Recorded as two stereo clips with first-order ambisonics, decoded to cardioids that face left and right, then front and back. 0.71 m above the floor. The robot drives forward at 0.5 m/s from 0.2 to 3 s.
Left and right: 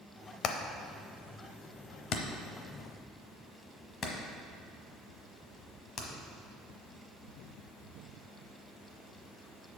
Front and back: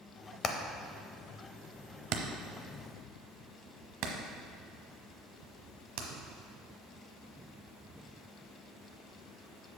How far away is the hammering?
About 0.7 m.